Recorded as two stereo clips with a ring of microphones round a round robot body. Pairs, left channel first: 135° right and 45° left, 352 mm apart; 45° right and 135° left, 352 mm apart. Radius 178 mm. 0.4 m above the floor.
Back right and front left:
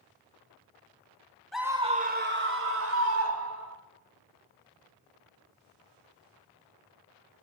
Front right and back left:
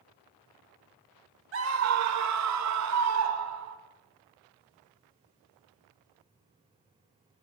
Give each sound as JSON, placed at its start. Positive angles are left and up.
{"t": 1.5, "sound": "a scream", "azimuth_deg": 135, "distance_m": 1.0}